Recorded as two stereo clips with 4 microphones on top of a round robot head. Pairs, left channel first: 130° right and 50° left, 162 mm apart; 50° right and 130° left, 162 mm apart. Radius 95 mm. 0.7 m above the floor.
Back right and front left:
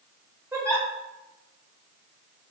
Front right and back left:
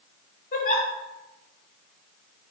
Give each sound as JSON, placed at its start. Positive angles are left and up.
{"t": 0.5, "sound": "a giggle", "azimuth_deg": -20, "distance_m": 1.0}